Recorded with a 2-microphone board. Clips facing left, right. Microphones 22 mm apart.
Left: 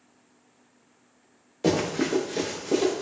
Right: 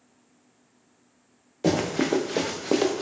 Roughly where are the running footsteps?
Centre.